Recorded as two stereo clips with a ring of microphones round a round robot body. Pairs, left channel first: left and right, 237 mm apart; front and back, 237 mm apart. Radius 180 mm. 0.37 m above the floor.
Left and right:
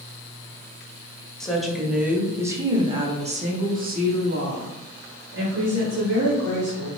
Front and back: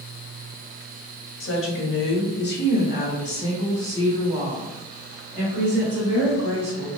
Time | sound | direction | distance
1.4 | a woman speaking | 5° left | 1.7 m